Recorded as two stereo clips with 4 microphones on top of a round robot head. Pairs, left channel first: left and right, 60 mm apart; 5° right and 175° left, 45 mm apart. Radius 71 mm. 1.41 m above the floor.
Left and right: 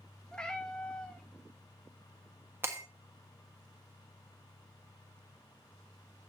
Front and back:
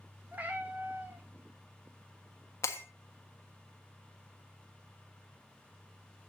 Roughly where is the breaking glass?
Ahead right.